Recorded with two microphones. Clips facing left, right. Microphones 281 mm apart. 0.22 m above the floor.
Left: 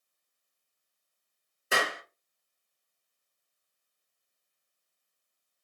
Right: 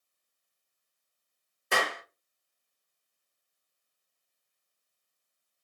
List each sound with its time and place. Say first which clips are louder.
1.7 s a clap: even; 5° left (ahead or behind), 2.5 m